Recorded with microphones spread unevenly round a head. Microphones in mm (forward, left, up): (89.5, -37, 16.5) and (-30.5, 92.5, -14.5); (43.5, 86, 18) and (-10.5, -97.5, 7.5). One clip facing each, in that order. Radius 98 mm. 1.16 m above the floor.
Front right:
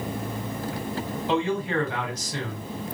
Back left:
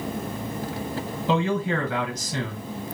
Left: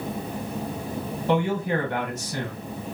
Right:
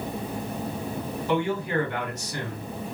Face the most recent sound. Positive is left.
turn(degrees=140)